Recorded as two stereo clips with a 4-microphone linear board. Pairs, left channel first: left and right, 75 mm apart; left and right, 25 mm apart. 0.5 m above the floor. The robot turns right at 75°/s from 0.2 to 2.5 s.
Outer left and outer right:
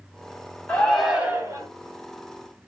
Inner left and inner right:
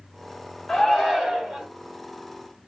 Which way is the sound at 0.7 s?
155° left.